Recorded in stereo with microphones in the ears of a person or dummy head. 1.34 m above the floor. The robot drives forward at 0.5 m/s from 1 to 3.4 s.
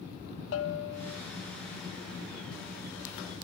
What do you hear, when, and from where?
0.5 s a bell: 75° left (ahead or behind), 0.6 m